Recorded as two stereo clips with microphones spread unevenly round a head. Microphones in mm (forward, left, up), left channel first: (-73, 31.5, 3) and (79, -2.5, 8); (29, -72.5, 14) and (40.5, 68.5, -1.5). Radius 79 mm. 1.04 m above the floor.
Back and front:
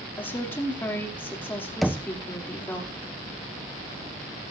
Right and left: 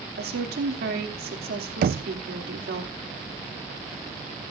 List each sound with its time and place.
0.2 s a woman speaking: 90° left, 2.5 m
1.8 s knocking: 80° left, 0.6 m